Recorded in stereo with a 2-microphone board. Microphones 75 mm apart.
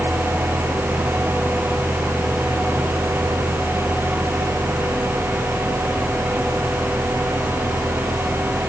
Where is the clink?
No clink in this recording.